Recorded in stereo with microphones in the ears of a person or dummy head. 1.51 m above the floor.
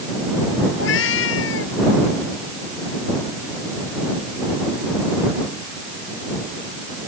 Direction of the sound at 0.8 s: 70° left (ahead or behind).